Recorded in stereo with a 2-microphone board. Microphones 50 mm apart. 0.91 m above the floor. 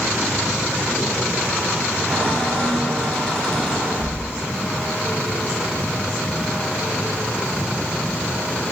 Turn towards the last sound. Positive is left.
turn(degrees=10)  # may be behind; listen again after turning